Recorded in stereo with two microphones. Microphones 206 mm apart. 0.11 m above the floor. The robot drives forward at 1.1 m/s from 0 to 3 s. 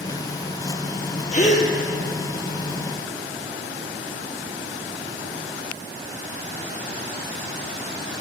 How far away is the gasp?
About 1.7 m.